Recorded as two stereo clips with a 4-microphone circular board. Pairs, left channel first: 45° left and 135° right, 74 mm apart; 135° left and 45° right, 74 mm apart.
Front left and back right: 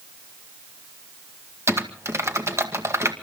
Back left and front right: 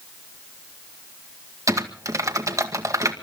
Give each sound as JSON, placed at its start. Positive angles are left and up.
{"t": 1.7, "sound": "typing on a keyboard", "azimuth_deg": -85, "distance_m": 1.9}